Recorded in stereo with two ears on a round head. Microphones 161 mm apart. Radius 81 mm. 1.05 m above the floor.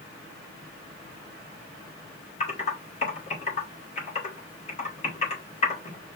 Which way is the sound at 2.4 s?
40° left (ahead or behind).